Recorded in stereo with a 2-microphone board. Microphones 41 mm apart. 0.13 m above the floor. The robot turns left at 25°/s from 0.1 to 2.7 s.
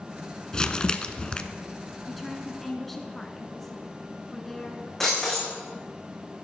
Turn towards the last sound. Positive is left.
turn(degrees=10)  # may be behind; listen again after turning